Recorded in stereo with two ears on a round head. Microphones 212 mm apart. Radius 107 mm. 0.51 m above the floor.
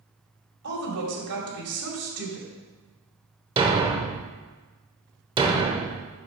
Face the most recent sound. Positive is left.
turn(degrees=-20)  # may be behind; listen again after turning